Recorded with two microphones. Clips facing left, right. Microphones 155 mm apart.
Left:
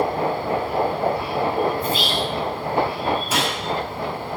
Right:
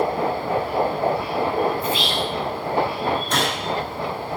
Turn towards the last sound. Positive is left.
turn(degrees=5)  # may be behind; listen again after turning